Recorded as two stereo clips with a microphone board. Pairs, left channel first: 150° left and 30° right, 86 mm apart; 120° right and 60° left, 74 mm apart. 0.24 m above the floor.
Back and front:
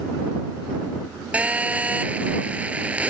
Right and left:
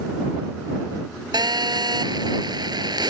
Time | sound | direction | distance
1.3 | a phone buzzing | 45° left | ?